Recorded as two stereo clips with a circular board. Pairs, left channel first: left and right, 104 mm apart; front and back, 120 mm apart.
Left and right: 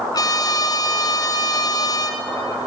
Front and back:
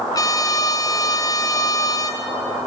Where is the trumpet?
50° left, 2 m.